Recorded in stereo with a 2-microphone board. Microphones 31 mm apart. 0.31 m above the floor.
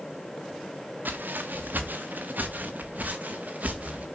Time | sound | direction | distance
1.1 | footsteps | 80° right | 2 m